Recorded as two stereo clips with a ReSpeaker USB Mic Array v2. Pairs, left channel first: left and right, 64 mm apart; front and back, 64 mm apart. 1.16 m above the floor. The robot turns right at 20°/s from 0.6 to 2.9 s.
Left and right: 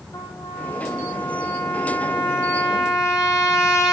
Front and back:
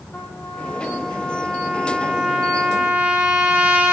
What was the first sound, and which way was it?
A trumpet, 65° left.